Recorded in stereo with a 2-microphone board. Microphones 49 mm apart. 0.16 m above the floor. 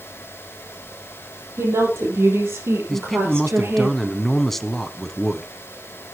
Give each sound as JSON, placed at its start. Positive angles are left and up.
{"t": 1.6, "sound": "a woman speaking", "side_deg": -75, "distance_m": 6.5}
{"t": 2.9, "sound": "a man speaking", "side_deg": 5, "distance_m": 1.0}